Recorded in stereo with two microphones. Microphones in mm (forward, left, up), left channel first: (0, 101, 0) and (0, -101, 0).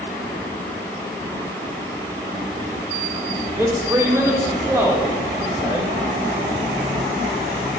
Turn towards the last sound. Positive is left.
turn(degrees=-15)  # may be behind; listen again after turning